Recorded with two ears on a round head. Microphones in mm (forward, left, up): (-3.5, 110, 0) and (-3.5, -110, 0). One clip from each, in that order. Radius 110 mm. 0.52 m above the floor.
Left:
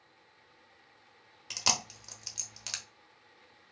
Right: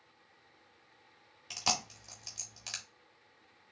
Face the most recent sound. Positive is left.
turn(degrees=20)  # may be behind; listen again after turning